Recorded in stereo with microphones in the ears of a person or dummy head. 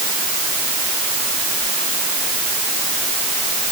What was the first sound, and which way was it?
Only background noise.